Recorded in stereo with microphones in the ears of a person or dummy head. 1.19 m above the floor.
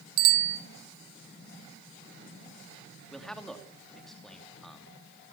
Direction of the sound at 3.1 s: 10° left (ahead or behind).